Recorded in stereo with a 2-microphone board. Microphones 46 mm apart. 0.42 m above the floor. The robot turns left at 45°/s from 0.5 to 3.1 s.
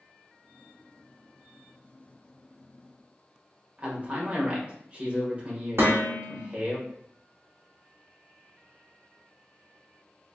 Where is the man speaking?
30° right (ahead or behind), 1.5 m.